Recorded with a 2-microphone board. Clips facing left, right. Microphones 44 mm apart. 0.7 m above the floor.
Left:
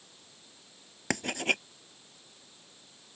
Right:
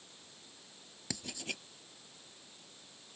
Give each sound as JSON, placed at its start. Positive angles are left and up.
{"t": 1.1, "sound": "writing", "side_deg": 55}